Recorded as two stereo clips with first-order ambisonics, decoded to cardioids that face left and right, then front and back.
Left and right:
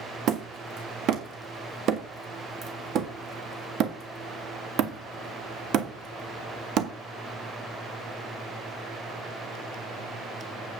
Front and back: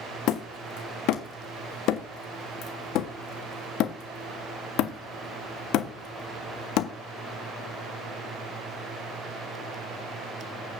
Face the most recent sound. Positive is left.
turn(degrees=-40)